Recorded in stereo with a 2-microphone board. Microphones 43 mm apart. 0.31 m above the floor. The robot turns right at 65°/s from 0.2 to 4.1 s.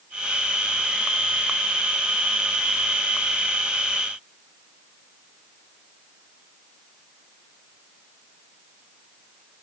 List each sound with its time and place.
Only background noise.